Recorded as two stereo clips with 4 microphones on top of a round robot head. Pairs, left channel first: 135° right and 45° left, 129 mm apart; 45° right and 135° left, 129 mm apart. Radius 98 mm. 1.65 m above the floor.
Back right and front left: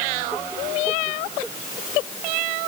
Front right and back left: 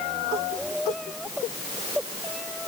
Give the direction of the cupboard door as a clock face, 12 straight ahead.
I don't hear a cupboard door.